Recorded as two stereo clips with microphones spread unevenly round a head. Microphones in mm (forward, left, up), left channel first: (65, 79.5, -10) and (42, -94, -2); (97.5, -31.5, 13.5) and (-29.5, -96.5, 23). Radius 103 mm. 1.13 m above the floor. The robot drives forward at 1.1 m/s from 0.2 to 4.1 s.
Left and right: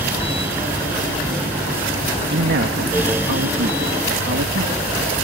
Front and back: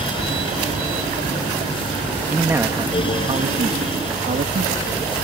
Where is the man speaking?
75° right; by 4.9 s 125° right.